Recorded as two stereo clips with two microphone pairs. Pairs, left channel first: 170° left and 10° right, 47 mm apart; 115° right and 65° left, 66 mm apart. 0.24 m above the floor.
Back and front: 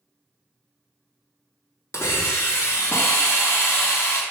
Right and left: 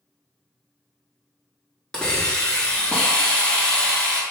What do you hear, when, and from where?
1.9 s a hiss: 170° left, 0.7 m